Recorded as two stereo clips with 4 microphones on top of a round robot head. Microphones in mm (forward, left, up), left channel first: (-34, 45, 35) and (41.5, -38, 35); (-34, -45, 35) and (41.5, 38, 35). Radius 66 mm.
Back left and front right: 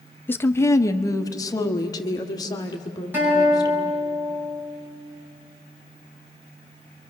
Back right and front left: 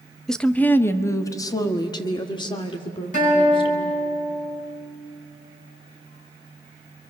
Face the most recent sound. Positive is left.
turn(degrees=-120)